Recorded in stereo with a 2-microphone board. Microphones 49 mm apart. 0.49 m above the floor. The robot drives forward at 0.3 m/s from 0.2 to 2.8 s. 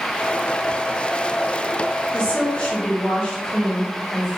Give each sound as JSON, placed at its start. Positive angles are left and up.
{"t": 2.1, "sound": "a woman speaking", "side_deg": 30, "distance_m": 1.5}